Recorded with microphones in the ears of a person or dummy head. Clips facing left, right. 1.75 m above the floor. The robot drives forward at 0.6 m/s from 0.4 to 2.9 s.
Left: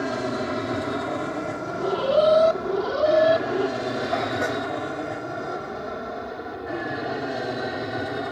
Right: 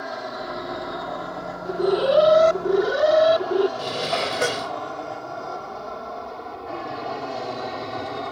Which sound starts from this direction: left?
An aircraft, at 0.0 s.